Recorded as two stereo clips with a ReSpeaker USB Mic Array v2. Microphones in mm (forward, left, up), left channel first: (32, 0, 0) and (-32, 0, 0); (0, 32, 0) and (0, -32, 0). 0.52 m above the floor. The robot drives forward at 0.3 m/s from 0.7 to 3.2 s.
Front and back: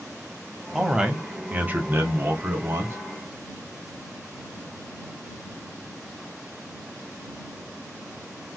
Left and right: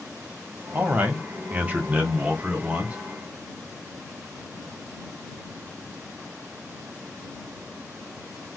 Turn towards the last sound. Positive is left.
turn(degrees=-155)